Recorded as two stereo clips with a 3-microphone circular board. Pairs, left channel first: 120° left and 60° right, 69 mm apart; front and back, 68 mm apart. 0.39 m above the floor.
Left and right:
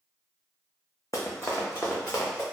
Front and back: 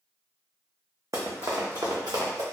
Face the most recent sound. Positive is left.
turn(degrees=175)